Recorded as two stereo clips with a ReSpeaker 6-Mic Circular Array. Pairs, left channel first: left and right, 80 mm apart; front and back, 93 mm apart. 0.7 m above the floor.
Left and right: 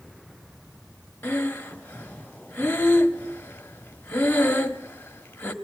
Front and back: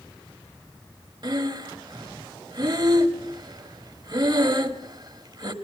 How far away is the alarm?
I don't hear an alarm.